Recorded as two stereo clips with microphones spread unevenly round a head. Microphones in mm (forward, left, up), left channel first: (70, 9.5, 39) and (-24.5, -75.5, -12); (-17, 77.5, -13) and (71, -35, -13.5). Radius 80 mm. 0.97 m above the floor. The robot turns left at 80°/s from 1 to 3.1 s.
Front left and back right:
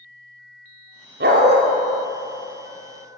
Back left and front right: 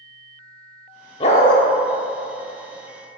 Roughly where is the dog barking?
Behind.